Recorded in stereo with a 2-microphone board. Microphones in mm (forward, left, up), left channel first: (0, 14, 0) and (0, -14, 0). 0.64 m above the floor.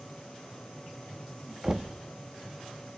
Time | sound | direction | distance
1.6 | knocking | 25° right (ahead or behind) | 0.5 m